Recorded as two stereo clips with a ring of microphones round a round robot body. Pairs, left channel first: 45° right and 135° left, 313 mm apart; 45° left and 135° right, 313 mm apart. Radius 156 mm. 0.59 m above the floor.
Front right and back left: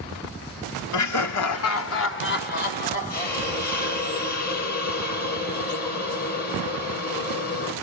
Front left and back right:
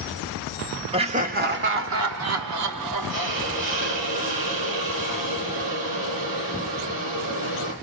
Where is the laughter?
65° right, 1.8 m; by 3.8 s 115° right, 3.5 m.